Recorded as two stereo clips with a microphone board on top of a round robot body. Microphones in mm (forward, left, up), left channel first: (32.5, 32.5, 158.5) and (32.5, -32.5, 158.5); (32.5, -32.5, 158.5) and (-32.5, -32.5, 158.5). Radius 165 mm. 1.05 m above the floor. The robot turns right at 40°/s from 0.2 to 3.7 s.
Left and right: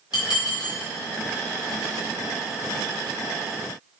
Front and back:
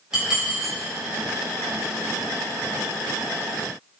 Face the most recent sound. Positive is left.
turn(degrees=-120)